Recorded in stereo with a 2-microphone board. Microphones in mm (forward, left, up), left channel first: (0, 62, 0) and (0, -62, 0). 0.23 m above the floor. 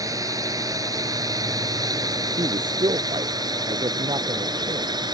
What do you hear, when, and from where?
0.0 s a drone: 30° right (ahead or behind); by 5.2 s 35° right (ahead or behind)
2.4 s a man speaking: 40° right (ahead or behind)